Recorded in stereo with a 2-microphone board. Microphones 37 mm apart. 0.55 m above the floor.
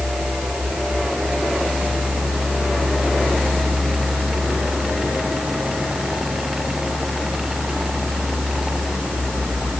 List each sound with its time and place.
Only background noise.